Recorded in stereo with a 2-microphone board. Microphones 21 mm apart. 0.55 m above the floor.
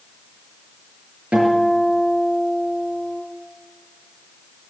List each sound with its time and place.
1.3 s a guitar: 75° right (ahead or behind), 4.5 m